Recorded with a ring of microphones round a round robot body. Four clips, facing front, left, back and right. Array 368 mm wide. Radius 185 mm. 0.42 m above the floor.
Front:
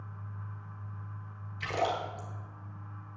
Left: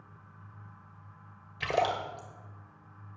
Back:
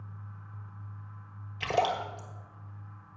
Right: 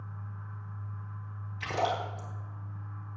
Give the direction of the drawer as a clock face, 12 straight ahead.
No drawer in this recording.